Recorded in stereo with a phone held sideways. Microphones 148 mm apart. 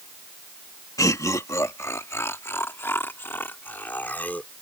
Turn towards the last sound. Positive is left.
turn(degrees=10)  # may be behind; listen again after turning